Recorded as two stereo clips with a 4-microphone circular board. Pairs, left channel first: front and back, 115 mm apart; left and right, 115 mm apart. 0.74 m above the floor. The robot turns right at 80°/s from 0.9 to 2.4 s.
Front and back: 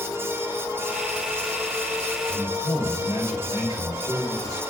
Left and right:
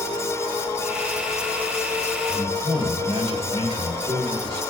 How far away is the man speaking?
About 3.5 m.